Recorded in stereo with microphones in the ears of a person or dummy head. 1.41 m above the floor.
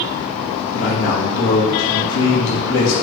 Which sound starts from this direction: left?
A man speaking, at 0.7 s.